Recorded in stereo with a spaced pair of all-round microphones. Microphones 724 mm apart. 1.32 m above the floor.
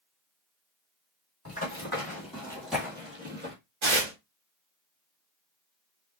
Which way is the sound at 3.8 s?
40° right (ahead or behind).